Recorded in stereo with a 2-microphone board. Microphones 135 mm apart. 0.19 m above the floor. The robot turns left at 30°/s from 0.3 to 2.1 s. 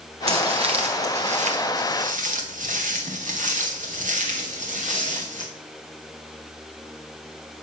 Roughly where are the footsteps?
Right.